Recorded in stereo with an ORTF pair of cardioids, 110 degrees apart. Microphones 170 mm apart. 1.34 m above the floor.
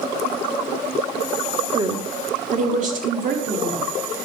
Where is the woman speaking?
25° right, 1.0 m; by 3.9 s 55° right, 3.5 m.